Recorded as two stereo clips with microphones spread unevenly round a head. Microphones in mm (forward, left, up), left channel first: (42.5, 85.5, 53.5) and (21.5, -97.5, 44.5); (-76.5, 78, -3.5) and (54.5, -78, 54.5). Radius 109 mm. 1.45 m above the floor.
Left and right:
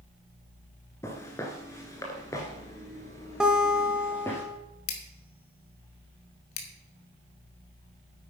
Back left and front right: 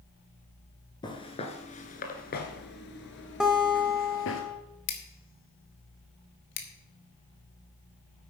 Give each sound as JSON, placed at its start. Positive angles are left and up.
{"t": 1.0, "sound": "footsteps", "azimuth_deg": 50, "distance_m": 1.4}
{"t": 3.4, "sound": "a guitar", "azimuth_deg": -10, "distance_m": 1.3}
{"t": 4.9, "sound": "scissors", "azimuth_deg": 90, "distance_m": 1.5}